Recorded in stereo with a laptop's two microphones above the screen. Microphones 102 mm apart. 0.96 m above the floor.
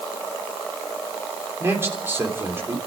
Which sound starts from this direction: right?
A man speaking, at 1.6 s.